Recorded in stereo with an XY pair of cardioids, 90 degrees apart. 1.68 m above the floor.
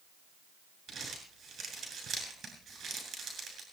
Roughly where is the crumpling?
Ahead right.